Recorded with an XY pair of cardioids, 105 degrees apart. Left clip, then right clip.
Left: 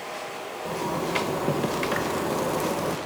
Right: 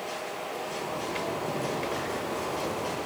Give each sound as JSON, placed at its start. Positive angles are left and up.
{"t": 0.7, "sound": "a zipper", "azimuth_deg": 70, "distance_m": 2.0}